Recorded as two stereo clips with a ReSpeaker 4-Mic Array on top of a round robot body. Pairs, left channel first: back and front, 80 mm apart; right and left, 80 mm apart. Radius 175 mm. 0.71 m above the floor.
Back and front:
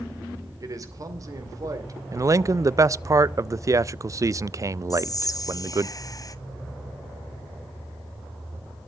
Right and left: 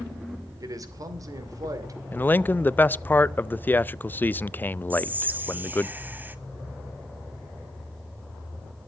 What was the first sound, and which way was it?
A man speaking, 45° left.